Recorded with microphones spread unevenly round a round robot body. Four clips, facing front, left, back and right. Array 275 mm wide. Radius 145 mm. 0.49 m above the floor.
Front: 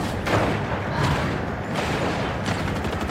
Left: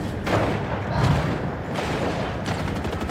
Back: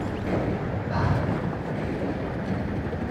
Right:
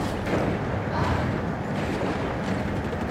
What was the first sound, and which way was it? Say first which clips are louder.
Breathing: left 3 dB, front 1 dB; 110° left.